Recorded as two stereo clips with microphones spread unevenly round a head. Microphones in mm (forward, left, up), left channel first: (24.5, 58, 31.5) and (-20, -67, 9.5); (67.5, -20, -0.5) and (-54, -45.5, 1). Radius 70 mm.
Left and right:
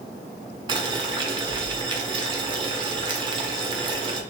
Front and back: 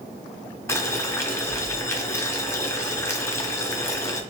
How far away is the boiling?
About 0.6 m.